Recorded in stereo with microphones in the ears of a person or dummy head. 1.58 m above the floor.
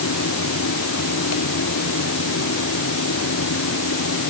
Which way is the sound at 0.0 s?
80° left.